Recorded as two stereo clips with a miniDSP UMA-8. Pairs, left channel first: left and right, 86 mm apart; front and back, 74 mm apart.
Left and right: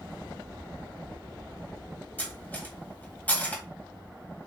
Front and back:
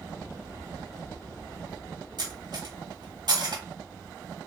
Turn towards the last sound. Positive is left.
turn(degrees=160)